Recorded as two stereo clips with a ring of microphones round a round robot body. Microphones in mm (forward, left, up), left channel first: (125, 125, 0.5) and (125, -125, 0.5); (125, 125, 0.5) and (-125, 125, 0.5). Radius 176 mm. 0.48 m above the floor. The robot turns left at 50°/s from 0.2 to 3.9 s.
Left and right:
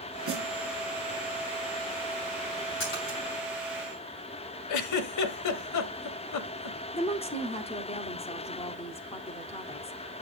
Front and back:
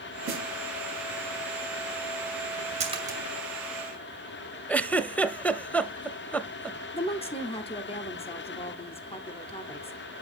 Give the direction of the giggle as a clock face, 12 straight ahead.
9 o'clock.